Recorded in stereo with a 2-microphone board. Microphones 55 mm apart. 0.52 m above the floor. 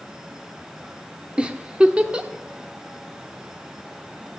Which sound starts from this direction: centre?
A giggle, at 1.4 s.